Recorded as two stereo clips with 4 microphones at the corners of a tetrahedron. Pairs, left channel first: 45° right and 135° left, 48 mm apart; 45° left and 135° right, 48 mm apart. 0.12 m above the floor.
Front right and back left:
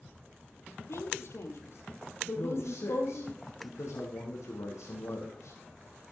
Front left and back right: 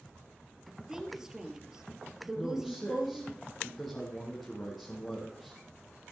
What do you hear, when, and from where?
0.9 s a woman speaking: 55° right, 3 m
2.4 s a man speaking: 45° right, 4.5 m